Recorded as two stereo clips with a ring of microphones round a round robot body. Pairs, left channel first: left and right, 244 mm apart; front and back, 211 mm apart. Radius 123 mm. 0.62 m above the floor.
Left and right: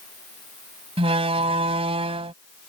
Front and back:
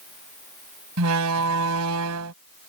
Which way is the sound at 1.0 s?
160° right.